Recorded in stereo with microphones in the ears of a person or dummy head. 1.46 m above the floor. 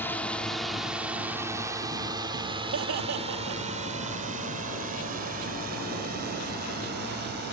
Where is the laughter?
75° right (ahead or behind).